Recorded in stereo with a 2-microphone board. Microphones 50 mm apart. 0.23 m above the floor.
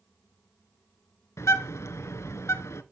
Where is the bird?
75° left (ahead or behind), 0.9 m.